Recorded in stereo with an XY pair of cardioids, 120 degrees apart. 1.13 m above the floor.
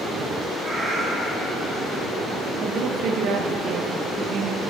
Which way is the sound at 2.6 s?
65° right.